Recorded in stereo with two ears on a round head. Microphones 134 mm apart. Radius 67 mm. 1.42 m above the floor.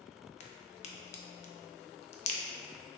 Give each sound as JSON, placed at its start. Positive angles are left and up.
{"t": 0.4, "sound": "a crack", "side_deg": 45, "distance_m": 0.5}